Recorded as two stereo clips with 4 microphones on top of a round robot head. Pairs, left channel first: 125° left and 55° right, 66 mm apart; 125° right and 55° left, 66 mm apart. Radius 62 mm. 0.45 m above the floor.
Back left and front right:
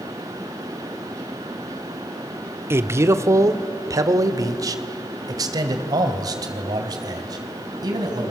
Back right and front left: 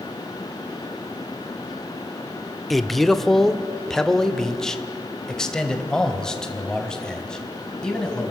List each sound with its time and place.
2.7 s a man speaking: 35° right, 1.2 m; by 8.3 s 45° right, 4 m